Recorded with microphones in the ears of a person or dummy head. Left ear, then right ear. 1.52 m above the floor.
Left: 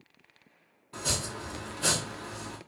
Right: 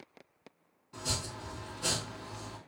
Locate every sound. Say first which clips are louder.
0.9 s chopping: left 4 dB; 20° left (ahead or behind), 1.0 m